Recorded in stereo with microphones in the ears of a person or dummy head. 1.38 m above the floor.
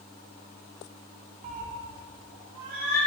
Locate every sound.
1.4 s a cat meowing: 35° right (ahead or behind), 1.1 m; by 3.0 s 70° right (ahead or behind), 2 m